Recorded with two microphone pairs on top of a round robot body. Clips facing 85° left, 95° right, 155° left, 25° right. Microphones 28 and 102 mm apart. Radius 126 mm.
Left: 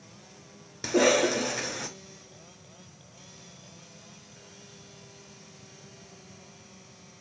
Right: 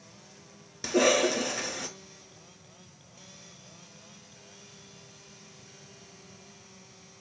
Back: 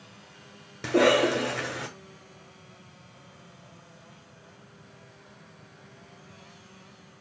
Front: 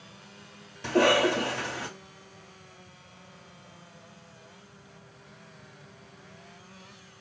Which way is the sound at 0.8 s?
165° left.